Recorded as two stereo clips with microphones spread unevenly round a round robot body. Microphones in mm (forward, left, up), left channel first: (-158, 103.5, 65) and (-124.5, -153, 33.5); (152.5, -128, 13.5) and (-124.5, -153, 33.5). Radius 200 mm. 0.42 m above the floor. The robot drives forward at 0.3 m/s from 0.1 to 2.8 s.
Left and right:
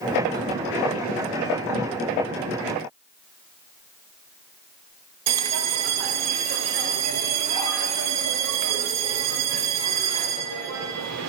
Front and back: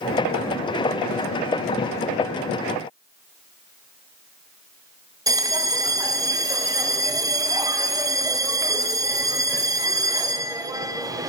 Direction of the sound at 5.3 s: 95° right.